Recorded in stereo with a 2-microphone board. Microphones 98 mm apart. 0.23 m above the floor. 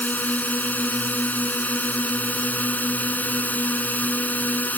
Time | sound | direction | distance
0.0 | a drone | 15° left (ahead or behind) | ?